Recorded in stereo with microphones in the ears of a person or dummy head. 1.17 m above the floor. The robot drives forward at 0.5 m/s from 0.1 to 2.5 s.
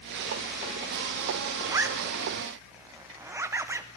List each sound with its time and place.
1.7 s a zipper: 20° right (ahead or behind), 0.6 m; by 3.9 s 15° right (ahead or behind), 0.7 m